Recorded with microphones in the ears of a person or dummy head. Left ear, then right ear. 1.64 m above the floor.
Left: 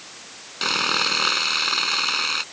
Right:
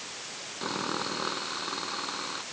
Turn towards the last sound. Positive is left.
turn(degrees=75)  # may be behind; listen again after turning